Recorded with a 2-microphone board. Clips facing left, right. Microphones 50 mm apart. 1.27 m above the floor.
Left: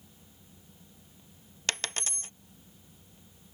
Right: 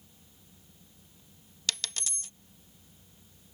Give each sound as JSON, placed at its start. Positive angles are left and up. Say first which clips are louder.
{"t": 1.7, "sound": "a dropped coin", "louder": "left 2 dB", "side_deg": 35}